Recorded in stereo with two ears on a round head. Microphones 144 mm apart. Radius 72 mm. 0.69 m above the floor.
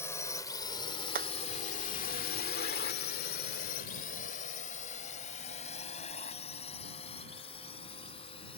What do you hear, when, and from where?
0.0 s a drone: 15° left (ahead or behind); by 8.6 s 35° left (ahead or behind)
1.1 s hammering: 60° right (ahead or behind)